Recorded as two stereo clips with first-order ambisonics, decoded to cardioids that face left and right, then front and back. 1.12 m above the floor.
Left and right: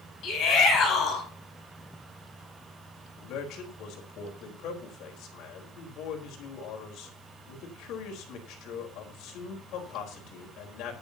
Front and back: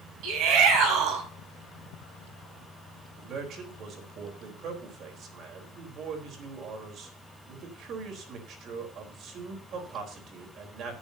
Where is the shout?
145° left, 9 m.